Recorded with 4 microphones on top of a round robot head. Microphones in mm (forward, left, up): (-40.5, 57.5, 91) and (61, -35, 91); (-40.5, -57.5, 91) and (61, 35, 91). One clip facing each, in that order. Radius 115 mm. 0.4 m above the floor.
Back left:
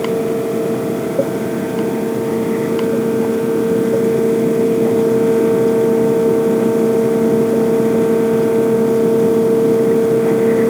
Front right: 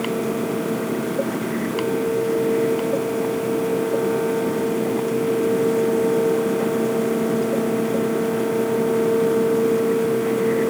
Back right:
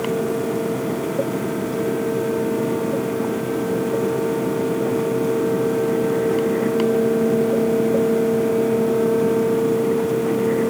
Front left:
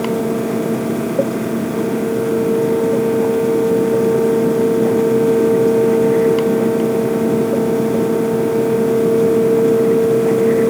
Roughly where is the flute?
I don't hear a flute.